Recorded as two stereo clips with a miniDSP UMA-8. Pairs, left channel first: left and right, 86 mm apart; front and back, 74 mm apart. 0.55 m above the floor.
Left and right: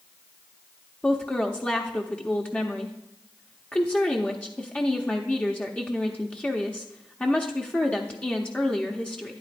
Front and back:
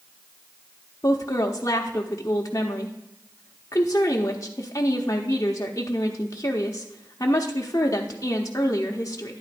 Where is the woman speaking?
20° left, 0.9 m.